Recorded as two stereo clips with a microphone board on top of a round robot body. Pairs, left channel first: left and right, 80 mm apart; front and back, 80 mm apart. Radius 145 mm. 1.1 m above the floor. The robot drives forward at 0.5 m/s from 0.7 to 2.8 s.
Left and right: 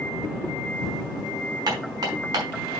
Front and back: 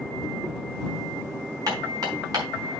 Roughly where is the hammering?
Behind right.